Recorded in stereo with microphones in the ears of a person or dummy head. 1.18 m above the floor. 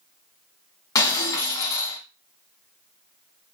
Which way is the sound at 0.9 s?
25° left (ahead or behind).